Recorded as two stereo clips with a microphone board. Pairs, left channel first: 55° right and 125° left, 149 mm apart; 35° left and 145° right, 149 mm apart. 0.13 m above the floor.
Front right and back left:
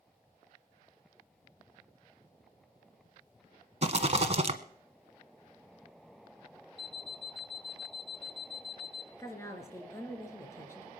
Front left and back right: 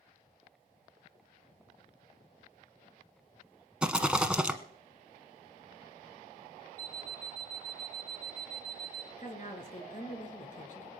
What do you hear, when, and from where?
3.8 s a rattle: 135° left, 1.0 m
6.8 s an alarm clock: 75° left, 0.9 m
9.2 s a woman speaking: 15° left, 3 m